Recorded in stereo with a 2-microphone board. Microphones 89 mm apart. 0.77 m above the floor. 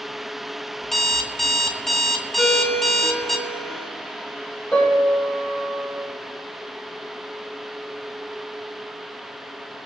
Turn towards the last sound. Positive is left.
turn(degrees=20)  # may be behind; listen again after turning